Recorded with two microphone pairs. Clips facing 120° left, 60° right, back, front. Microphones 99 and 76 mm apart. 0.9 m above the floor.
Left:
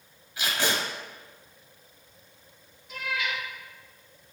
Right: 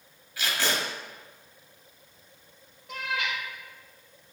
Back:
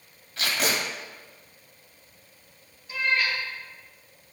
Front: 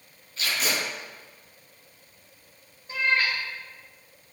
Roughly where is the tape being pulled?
Behind.